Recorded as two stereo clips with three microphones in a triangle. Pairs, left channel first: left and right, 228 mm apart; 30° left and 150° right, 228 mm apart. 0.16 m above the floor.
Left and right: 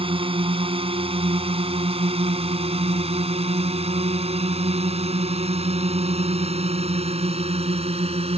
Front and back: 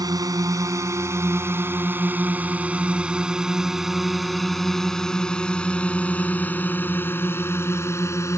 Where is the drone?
105° right; by 8.4 s 40° right.